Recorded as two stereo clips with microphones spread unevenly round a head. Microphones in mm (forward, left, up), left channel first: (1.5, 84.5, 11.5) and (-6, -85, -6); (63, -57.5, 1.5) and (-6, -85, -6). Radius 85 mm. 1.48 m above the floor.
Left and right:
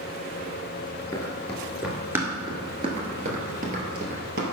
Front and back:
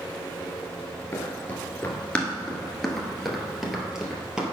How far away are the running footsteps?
About 1.6 m.